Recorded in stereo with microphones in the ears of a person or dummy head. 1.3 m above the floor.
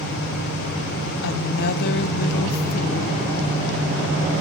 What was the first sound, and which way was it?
A woman speaking, 60° left (ahead or behind).